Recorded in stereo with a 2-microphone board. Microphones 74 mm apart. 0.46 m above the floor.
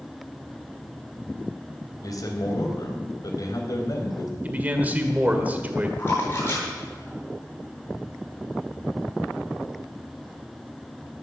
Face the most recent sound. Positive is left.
turn(degrees=35)  # may be behind; listen again after turning